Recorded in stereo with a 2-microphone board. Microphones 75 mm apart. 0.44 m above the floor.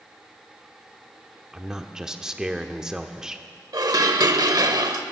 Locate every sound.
1.5 s a man speaking: 10° right (ahead or behind), 0.8 m
3.7 s dishes clattering: 65° right (ahead or behind), 0.9 m